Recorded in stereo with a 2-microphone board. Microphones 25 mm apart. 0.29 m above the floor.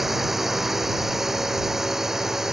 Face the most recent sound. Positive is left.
turn(degrees=-15)  # may be behind; listen again after turning